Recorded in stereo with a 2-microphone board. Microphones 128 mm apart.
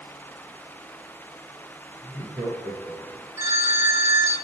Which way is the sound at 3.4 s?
20° right (ahead or behind).